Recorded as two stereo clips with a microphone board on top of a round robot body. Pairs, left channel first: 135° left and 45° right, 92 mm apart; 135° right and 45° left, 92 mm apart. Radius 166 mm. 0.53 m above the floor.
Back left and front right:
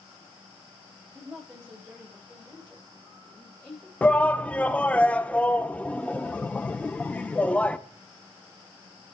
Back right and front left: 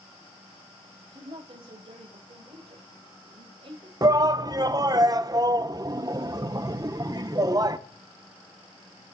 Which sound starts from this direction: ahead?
A woman speaking, at 1.1 s.